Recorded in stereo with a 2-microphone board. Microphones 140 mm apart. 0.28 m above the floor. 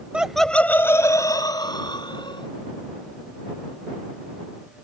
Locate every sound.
0.1 s laughter: 10° right (ahead or behind); by 2.5 s 35° left (ahead or behind)